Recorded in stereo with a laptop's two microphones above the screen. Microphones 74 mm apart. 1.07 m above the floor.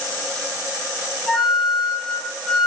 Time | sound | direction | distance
1.3 | a flute | 5° left (ahead or behind) | 3 m